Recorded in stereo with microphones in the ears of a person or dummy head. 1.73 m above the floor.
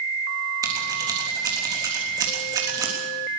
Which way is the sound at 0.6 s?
20° right (ahead or behind).